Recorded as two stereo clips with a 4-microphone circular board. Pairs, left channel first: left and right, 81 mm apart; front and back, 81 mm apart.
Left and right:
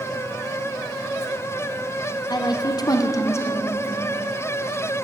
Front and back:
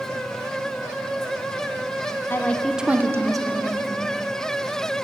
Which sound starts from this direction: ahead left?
A woman speaking, at 2.3 s.